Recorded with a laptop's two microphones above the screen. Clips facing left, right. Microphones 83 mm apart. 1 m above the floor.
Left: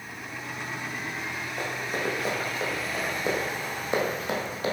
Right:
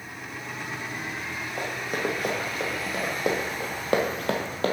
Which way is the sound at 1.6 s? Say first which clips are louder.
Right 2 dB; 50° right (ahead or behind).